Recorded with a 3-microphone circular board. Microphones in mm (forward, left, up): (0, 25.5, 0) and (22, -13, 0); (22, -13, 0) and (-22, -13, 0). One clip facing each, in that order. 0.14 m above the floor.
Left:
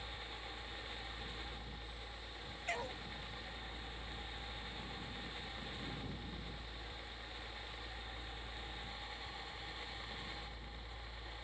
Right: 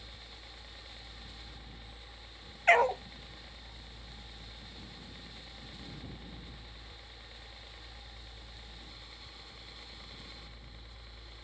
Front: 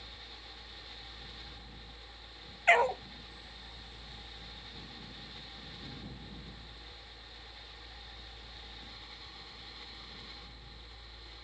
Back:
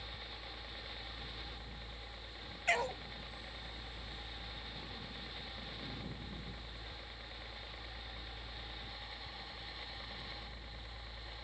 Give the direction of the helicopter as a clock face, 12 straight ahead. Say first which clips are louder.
Left 4 dB, back 2 dB; 5 o'clock.